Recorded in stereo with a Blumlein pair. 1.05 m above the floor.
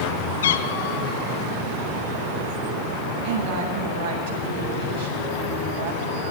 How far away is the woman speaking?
About 8 m.